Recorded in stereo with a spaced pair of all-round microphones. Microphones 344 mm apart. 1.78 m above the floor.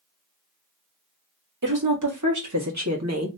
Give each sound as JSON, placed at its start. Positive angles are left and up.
{"t": 1.6, "sound": "a woman speaking", "side_deg": -70, "distance_m": 1.7}